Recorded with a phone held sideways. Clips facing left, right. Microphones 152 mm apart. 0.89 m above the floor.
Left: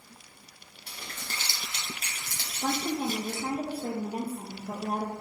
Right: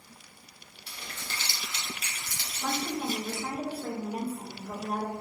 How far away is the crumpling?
About 1.2 m.